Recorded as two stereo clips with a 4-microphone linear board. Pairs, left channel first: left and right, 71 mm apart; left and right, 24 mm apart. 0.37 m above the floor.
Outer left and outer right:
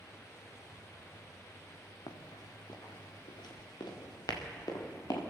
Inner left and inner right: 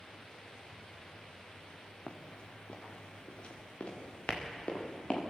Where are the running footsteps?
85° left, 3 m; by 5.2 s 65° left (ahead or behind), 4.5 m.